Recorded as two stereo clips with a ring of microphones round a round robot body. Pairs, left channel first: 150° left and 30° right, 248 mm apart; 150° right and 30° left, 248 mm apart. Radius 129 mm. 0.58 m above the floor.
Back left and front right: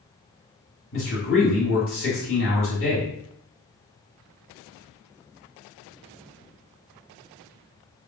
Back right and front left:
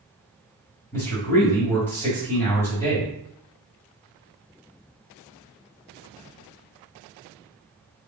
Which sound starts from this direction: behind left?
A man speaking, at 0.9 s.